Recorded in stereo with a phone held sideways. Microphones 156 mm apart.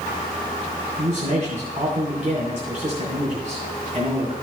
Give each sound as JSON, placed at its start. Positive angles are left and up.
{"t": 1.0, "sound": "a man speaking", "side_deg": -50, "distance_m": 2.5}